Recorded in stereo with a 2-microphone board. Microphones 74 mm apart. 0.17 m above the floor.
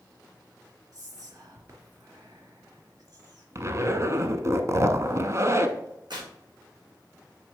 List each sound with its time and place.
0.9 s whispering: 55° right (ahead or behind), 2.5 m
3.5 s a zipper: 45° right (ahead or behind), 0.7 m
6.1 s tearing paper: 80° right, 2.5 m